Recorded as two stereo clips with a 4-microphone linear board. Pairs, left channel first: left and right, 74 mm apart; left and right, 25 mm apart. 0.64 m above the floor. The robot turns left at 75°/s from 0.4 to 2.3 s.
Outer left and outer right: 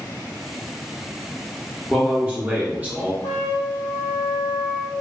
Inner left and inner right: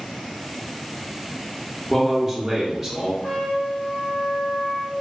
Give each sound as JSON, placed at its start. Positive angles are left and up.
{"t": 1.9, "sound": "a man speaking", "side_deg": 0, "distance_m": 0.6}
{"t": 3.2, "sound": "a trumpet", "side_deg": 55, "distance_m": 1.1}